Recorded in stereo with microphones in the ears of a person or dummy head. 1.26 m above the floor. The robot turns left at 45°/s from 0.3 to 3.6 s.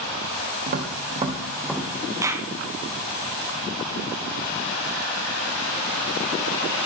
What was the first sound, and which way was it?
Tapping, 35° right (ahead or behind).